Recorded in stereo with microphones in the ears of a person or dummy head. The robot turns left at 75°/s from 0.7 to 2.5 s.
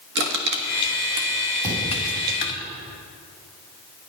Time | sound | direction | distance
0.1 | crushing | 65° right (ahead or behind) | 1.3 m
1.6 | a thud | 170° left | 4.5 m